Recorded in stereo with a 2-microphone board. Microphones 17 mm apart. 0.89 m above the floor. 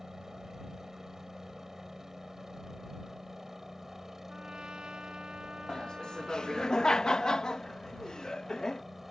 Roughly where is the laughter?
Left.